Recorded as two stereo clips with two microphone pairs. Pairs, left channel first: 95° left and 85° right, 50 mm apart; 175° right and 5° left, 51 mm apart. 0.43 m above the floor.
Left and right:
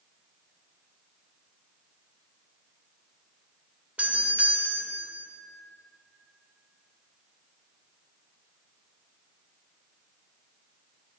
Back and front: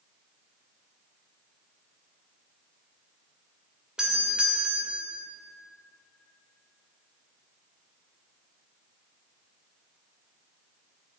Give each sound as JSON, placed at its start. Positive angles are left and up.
{"t": 4.0, "sound": "a doorbell", "azimuth_deg": -55, "distance_m": 1.7}